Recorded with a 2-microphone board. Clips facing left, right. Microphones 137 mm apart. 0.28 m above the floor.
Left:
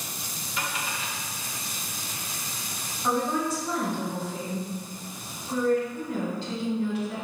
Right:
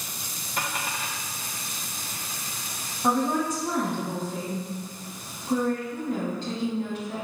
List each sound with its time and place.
0.6 s a dropped coin: 55° right (ahead or behind), 2 m
3.0 s a woman speaking: 50° right (ahead or behind), 1.8 m